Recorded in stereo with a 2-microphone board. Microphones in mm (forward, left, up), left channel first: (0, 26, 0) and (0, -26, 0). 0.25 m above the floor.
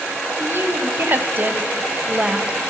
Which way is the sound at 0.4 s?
50° right (ahead or behind).